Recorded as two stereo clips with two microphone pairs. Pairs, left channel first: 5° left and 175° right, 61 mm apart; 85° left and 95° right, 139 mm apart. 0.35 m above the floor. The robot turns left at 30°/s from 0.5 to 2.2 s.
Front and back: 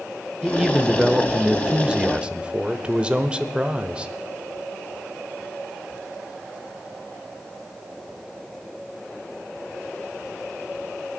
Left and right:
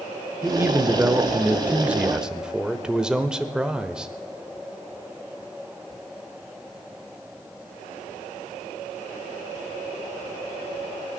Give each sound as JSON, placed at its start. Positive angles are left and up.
{"t": 0.4, "sound": "a man speaking", "azimuth_deg": -115, "distance_m": 0.8}